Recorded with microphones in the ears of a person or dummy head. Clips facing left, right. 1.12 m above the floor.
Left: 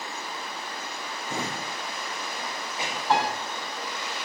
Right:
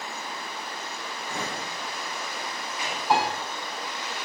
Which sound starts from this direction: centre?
A piano, at 3.1 s.